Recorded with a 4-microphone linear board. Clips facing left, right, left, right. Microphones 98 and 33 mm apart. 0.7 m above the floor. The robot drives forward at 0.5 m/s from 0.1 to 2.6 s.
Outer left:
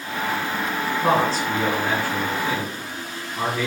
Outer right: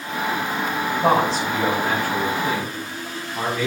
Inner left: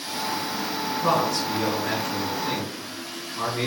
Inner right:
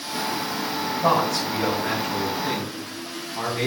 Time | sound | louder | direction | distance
1.0 | a man speaking | outer right 2 dB, inner right 2 dB | 80° right | 4 m